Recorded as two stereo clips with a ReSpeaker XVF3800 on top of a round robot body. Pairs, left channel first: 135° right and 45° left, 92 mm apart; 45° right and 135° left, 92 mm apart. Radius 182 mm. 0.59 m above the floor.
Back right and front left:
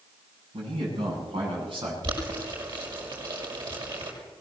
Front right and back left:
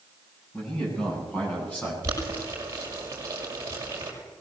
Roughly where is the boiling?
Left.